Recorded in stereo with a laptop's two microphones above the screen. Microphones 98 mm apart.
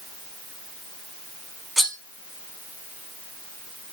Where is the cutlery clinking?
Centre (ahead or behind), 2 m.